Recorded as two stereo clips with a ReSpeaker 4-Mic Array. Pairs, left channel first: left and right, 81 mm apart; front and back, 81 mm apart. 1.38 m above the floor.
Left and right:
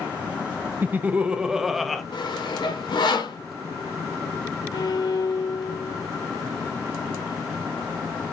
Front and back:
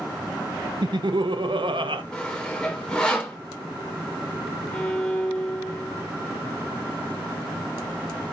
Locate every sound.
0.8 s laughter: 155° right, 1.1 m; by 2.0 s straight behind, 1.5 m
2.1 s sawing: 80° left, 2.5 m
4.7 s a violin: 75° left, 2.5 m